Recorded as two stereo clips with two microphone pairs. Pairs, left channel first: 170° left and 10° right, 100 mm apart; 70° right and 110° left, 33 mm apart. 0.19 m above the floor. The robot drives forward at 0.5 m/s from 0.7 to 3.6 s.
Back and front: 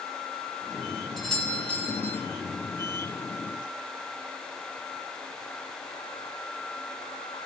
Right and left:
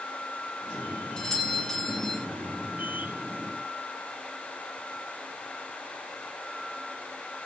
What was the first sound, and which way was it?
A doorbell, 100° right.